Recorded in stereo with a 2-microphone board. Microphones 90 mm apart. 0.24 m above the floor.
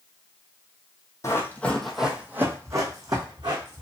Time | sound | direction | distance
1.2 | running footsteps | 35° left (ahead or behind) | 0.7 m